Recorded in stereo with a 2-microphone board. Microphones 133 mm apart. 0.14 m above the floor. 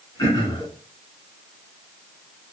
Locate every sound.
0.2 s throat clearing: 30° left (ahead or behind), 1.7 m